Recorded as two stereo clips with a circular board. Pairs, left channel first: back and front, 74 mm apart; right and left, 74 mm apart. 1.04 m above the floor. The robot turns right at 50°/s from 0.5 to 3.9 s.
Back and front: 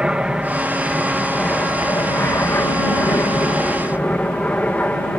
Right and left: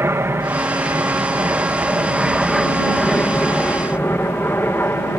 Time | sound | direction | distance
0.0 | an aircraft | 70° left | ?